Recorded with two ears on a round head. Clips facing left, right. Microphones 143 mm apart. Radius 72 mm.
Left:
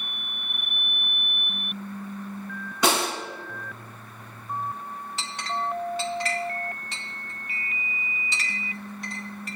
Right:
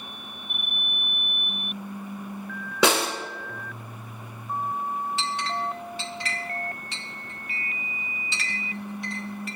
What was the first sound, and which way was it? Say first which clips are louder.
A snare drum: right 2 dB; 55° right (ahead or behind).